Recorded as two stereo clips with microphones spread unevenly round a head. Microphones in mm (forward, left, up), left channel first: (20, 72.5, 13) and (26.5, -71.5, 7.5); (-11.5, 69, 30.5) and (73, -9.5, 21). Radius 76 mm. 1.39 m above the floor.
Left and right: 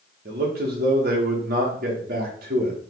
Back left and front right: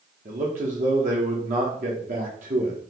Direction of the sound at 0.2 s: 70° right.